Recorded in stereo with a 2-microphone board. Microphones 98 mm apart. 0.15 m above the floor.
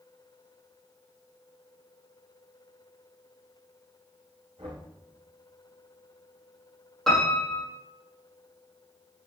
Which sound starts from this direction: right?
Knocking, at 4.6 s.